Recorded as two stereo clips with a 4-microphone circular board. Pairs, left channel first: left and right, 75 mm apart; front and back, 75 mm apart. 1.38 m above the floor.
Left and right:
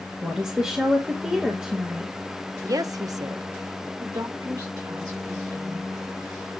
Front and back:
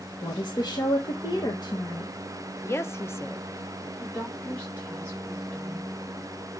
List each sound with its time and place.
0.2 s a woman speaking: 10° right, 1.7 m
2.6 s a woman speaking: 55° right, 0.8 m
4.0 s a woman speaking: 70° right, 3.5 m